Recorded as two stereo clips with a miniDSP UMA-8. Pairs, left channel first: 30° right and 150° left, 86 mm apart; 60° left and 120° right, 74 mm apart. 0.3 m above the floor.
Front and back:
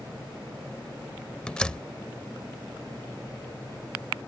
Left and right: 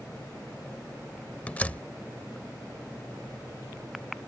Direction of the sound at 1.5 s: 30° left.